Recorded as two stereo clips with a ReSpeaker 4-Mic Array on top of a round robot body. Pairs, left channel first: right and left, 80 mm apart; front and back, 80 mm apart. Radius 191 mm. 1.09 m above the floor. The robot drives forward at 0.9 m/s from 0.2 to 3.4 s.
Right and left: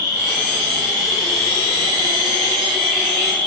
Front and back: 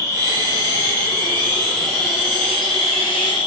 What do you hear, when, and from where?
0.0 s an insect: 50° left, 3.5 m; by 3.5 s 110° left, 2.5 m